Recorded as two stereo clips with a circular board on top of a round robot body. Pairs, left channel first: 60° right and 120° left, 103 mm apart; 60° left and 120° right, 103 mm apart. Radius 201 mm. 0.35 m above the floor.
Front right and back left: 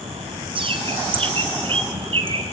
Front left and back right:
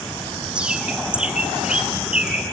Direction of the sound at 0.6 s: 160° left.